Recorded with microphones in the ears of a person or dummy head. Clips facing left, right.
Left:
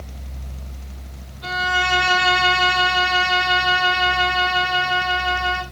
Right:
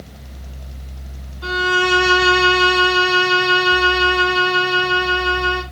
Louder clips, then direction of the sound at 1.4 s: Right 6 dB; 55° right (ahead or behind).